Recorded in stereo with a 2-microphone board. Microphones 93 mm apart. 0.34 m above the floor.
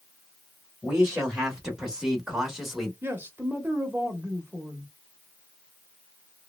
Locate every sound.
0.8 s a man speaking: 10° right (ahead or behind), 1.2 m; by 2.9 s 5° right (ahead or behind), 1.0 m
3.0 s a man speaking: 25° right (ahead or behind), 0.9 m